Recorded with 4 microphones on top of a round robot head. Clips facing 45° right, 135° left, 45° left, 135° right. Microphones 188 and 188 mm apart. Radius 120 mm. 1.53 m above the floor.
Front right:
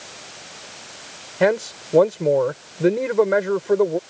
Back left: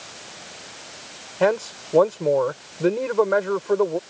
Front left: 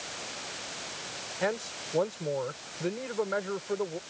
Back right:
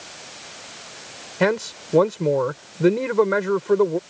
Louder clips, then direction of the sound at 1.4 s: Front right 2 dB, back right 11 dB; 120° right.